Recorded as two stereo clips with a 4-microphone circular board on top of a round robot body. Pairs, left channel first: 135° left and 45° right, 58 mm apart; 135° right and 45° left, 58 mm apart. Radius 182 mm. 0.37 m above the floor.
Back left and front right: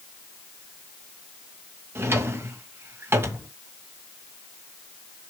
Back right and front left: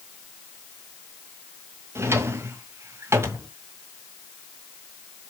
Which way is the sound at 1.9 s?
Straight ahead.